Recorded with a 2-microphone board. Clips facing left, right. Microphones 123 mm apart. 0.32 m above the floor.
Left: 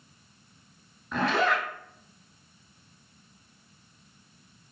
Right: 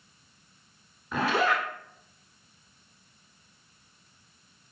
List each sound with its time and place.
1.1 s a zipper: 5° right (ahead or behind), 0.7 m